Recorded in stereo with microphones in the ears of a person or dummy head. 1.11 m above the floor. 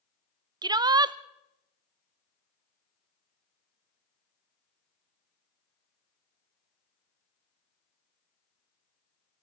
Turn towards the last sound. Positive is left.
turn(degrees=-25)  # may be behind; listen again after turning